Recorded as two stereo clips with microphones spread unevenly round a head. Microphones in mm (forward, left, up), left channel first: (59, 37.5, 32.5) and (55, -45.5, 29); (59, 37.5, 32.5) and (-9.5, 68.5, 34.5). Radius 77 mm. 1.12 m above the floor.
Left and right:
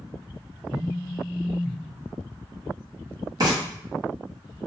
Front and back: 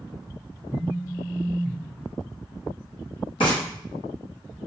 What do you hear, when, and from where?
0.7 s a phone buzzing: 105° left, 0.7 m
3.4 s frying: 60° right, 1.7 m